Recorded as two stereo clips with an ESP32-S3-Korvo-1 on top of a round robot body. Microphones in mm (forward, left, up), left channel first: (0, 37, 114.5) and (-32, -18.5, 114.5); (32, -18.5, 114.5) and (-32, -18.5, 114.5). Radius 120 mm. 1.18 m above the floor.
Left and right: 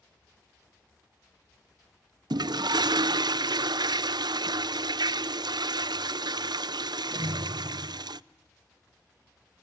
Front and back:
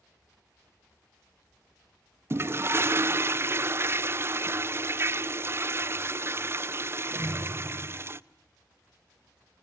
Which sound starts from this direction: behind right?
A toilet flushing, at 2.3 s.